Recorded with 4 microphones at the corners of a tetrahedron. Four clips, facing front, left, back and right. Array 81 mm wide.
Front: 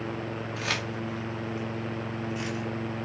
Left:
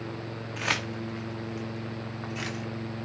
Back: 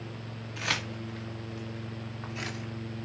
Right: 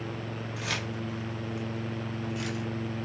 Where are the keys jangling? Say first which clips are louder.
Left 5 dB, back 1 dB; 80° left, 1.7 m; by 2.6 s 120° left, 2.5 m.